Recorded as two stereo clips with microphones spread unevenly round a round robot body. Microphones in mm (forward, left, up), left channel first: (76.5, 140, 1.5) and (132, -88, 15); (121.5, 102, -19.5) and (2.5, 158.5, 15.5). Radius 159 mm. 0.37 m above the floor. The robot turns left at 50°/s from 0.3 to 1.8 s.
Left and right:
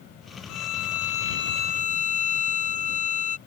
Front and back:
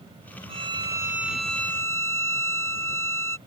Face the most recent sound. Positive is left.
turn(degrees=45)